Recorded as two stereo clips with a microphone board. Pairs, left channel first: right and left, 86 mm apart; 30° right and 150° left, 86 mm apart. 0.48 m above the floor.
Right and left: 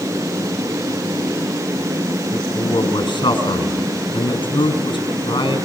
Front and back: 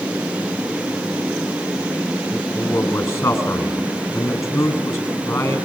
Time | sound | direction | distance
2.3 | a man speaking | 75° right | 4.5 m